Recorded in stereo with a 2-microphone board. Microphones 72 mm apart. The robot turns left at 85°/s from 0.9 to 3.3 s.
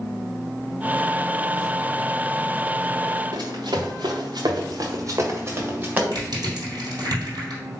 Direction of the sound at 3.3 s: 70° right (ahead or behind).